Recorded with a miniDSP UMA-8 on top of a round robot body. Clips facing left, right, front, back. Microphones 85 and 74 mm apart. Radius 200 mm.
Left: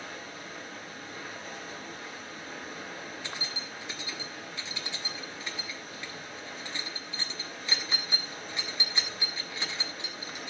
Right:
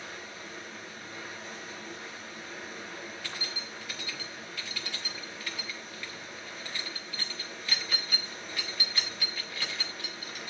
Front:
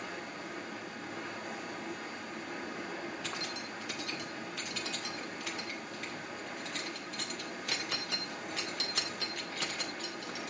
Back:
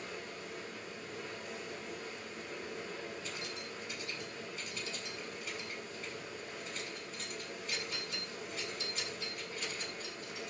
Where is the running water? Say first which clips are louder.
Left 1 dB, front 3 dB; 30° left, 9.5 m.